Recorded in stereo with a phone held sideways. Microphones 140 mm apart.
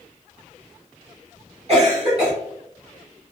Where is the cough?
50° right (ahead or behind), 1.1 m.